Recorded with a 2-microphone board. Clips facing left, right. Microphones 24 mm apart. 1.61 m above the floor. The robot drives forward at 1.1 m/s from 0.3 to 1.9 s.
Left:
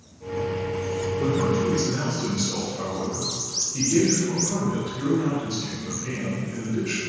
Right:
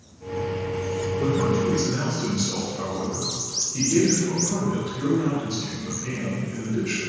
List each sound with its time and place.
1.2 s a man speaking: 60° right (ahead or behind), 1.3 m; by 7.1 s 40° right (ahead or behind), 1.8 m